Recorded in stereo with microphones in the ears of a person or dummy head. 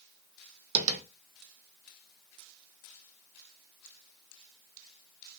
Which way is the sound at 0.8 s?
40° right (ahead or behind).